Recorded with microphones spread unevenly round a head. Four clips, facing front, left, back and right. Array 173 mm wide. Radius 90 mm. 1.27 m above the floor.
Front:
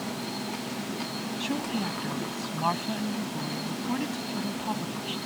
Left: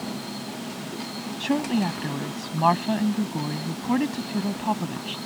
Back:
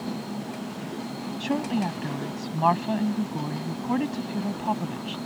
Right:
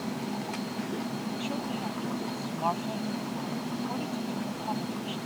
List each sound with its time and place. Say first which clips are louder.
1.4 s a woman speaking: left 14 dB, back 5 dB; 100° left